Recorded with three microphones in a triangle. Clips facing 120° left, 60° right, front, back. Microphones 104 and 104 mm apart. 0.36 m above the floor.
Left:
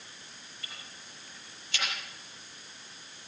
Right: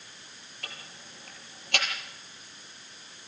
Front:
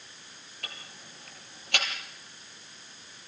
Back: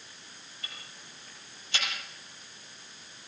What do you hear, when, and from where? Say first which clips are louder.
0.6 s ticking: right 5 dB, front 3 dB; 30° right, 4.5 m